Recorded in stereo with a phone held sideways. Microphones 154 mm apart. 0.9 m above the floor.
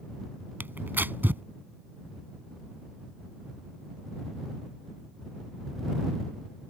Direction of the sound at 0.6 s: 15° right (ahead or behind).